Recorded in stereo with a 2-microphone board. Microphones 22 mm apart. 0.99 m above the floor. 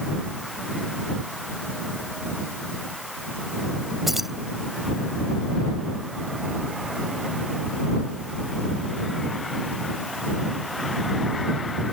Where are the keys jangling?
10° right (ahead or behind).